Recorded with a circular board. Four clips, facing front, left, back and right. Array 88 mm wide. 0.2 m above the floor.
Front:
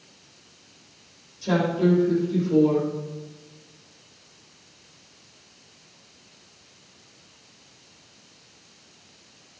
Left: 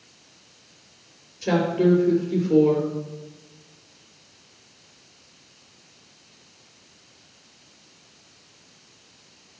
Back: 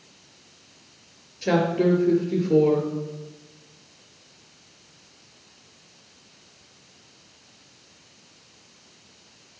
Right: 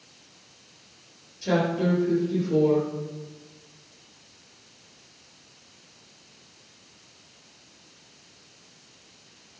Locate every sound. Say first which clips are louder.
1.4 s a woman speaking: left 4 dB, back 1 dB; 160° left, 3 m